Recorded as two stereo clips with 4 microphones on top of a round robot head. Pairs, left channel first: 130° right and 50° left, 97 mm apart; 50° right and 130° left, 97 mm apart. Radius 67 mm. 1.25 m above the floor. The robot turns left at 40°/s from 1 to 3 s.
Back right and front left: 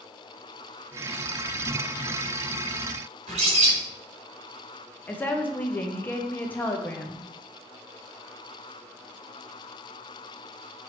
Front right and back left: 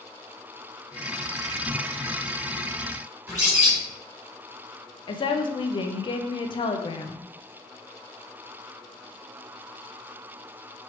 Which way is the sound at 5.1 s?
65° right.